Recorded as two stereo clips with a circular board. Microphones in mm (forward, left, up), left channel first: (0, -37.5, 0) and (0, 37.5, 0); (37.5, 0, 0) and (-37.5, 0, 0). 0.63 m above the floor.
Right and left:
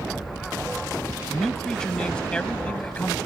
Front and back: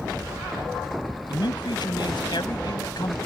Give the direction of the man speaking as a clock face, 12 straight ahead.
12 o'clock.